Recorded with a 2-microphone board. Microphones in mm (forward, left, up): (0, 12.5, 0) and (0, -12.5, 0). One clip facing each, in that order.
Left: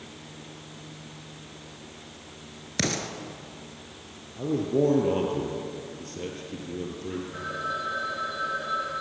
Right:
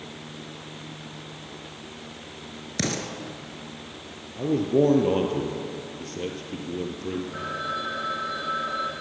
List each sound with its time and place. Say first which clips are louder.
2.8 s an explosion: even; 10° left (ahead or behind), 1.8 m
4.4 s a man speaking: right 3 dB; 20° right (ahead or behind), 2 m
7.3 s a phone ringing: right 1 dB; 15° right (ahead or behind), 4.5 m